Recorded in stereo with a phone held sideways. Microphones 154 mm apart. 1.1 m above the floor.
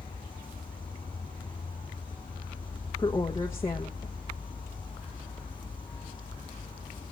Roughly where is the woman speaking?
Centre.